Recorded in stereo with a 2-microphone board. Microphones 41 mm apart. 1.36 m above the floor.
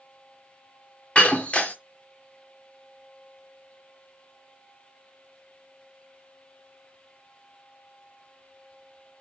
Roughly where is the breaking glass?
Left.